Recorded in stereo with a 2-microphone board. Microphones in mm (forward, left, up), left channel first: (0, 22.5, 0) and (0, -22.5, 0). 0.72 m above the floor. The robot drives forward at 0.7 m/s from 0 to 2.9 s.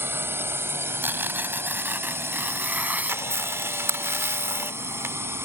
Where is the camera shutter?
80° right.